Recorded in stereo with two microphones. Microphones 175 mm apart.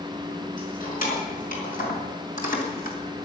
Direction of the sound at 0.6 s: 55° left (ahead or behind).